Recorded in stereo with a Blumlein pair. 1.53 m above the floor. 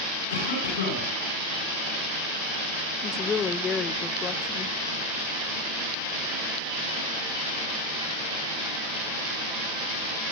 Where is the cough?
60° left, 10 m.